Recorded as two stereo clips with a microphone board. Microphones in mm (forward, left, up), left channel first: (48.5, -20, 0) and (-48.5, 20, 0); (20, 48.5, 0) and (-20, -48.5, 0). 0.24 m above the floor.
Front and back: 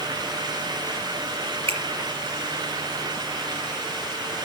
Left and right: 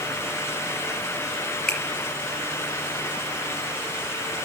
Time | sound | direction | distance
1.7 | a finger snap | 150° left | 4 m